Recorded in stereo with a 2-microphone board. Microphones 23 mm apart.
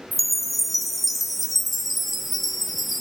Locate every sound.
0.1 s a chime: centre (ahead or behind), 1.0 m